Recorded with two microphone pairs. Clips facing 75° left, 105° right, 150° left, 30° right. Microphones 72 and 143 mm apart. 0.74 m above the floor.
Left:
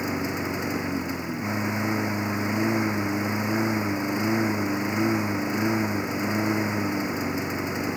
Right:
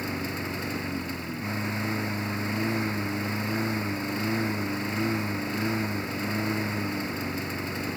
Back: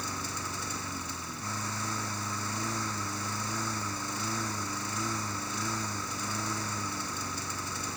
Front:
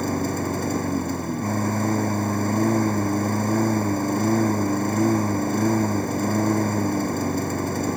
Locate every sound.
0.0 s a lawn mower: 5° left